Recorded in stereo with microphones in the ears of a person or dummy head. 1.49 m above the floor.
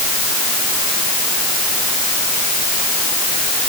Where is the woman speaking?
No woman speaking in this recording.